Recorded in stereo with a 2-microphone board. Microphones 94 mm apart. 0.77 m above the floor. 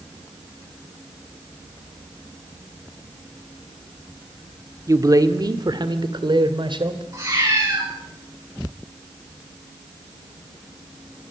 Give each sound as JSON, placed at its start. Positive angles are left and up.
{"t": 4.9, "sound": "a man speaking", "side_deg": -35, "distance_m": 1.7}
{"t": 7.1, "sound": "a cat meowing", "side_deg": -35, "distance_m": 10.0}